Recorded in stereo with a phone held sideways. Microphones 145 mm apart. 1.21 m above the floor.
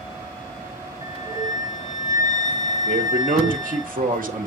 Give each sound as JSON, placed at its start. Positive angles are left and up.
{"t": 1.0, "sound": "a flute", "side_deg": 60, "distance_m": 2.5}
{"t": 2.9, "sound": "a man speaking", "side_deg": -70, "distance_m": 2.5}